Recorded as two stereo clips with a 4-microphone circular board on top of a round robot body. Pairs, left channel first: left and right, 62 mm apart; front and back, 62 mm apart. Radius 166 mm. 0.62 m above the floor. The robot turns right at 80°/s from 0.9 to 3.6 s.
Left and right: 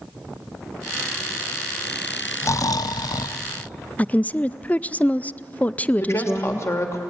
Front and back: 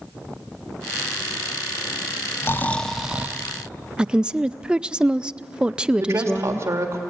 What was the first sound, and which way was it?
Snoring, 45° left.